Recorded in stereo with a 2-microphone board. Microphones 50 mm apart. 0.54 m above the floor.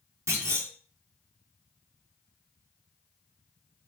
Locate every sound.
0.3 s a clunk: 70° right (ahead or behind), 1.2 m